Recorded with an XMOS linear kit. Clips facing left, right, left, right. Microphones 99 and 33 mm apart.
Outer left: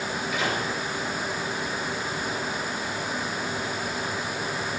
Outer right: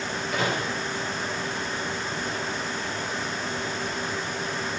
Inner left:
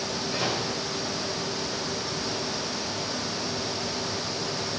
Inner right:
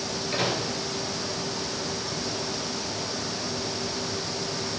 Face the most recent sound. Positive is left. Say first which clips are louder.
# outer right 2 dB, inner right 2 dB
turn(degrees=-45)  # may be behind; listen again after turning